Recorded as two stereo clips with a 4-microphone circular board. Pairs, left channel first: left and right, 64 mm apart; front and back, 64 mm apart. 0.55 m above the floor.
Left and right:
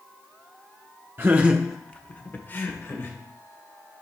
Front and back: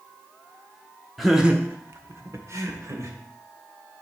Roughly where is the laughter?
Right.